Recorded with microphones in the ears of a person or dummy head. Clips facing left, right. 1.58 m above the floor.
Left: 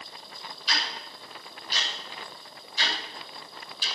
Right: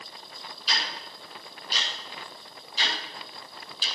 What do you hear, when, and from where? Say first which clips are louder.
0.7 s ticking: even; 30° right (ahead or behind), 9 m